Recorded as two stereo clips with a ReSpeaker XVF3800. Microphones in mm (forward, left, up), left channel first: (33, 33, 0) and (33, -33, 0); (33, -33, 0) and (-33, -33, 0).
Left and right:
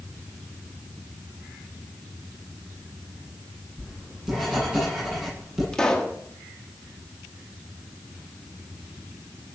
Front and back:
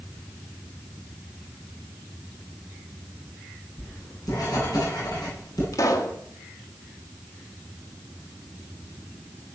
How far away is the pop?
About 2.0 m.